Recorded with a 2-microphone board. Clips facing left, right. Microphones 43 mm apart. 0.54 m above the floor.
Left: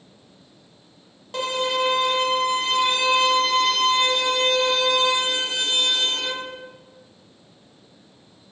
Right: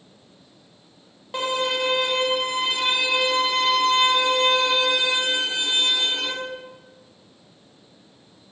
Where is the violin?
15° right (ahead or behind), 0.6 m.